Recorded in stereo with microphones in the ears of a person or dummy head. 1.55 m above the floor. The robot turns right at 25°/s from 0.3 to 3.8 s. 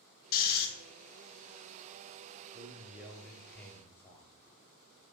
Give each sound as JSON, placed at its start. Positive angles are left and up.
{"t": 0.3, "sound": "snoring", "side_deg": 45, "distance_m": 0.5}
{"t": 2.5, "sound": "a man speaking", "azimuth_deg": -20, "distance_m": 0.7}